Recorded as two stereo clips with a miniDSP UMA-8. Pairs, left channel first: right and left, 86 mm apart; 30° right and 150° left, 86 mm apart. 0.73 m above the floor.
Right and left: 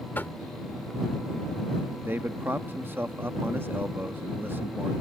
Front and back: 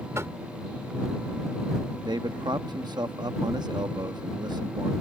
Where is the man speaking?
150° left.